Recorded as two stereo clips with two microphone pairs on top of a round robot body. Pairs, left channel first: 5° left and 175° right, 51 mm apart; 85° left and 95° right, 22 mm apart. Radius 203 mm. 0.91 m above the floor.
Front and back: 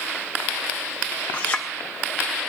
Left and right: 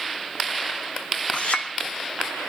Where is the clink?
60° left, 0.9 m.